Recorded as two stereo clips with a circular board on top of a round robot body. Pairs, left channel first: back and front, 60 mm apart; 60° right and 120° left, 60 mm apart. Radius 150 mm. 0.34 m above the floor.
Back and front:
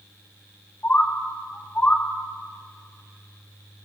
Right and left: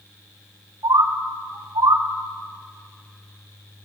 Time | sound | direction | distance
0.8 | a bird | 115° left | 2.5 m